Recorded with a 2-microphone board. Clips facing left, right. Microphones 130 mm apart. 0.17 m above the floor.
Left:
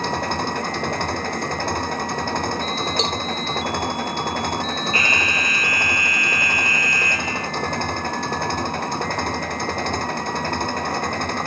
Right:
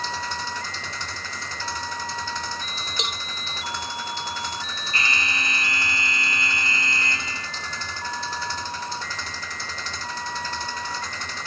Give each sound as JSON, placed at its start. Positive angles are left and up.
{"t": 0.0, "sound": "an engine running", "side_deg": 55}
{"t": 3.0, "sound": "a cowbell", "side_deg": 35}
{"t": 4.9, "sound": "an alarm", "side_deg": -30}